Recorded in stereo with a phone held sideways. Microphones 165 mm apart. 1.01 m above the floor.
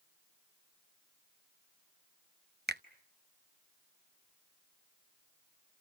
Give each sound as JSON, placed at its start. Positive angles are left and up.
{"t": 2.7, "sound": "a finger snap", "side_deg": -80, "distance_m": 0.7}